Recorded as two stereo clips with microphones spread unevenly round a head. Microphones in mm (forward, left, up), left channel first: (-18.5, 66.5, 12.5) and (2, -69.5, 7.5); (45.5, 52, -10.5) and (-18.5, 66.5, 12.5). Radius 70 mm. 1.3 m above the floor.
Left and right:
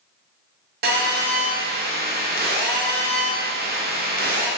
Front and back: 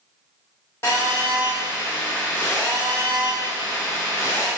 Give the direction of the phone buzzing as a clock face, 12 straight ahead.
3 o'clock.